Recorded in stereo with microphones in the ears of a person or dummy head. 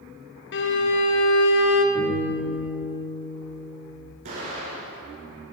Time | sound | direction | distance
0.5 | a violin | 55° left (ahead or behind) | 0.8 m
1.9 | a guitar | 15° left (ahead or behind) | 3.5 m
4.2 | an explosion | 45° right (ahead or behind) | 2.5 m